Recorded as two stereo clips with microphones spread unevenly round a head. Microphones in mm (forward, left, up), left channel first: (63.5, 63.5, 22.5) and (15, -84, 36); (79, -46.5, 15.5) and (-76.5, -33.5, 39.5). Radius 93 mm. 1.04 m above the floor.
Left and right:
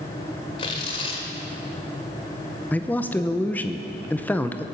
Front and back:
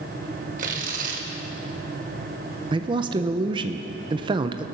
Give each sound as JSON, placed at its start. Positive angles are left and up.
{"t": 0.6, "sound": "tearing paper", "azimuth_deg": 135, "distance_m": 1.2}
{"t": 2.7, "sound": "a man speaking", "azimuth_deg": 130, "distance_m": 0.6}